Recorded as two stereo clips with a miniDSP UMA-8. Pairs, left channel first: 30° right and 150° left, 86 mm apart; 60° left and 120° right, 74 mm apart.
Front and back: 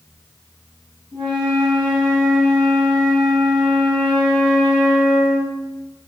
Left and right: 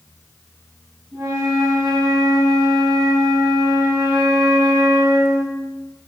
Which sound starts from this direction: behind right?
A flute, at 1.1 s.